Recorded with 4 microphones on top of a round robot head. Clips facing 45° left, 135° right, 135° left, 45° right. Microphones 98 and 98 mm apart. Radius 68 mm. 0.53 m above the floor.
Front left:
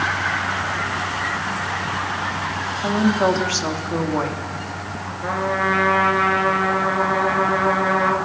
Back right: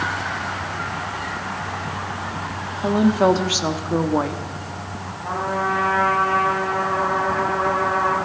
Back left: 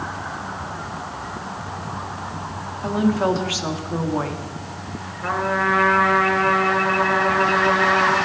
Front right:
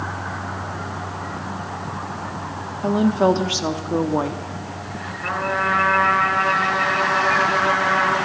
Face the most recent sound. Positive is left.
turn(degrees=45)